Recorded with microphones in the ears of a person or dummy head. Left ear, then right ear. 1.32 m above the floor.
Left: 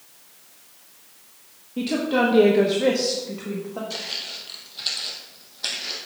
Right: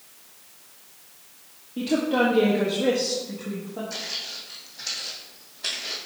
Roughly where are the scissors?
No scissors in this recording.